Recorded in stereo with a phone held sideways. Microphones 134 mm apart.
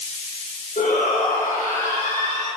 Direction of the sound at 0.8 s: 70° left (ahead or behind).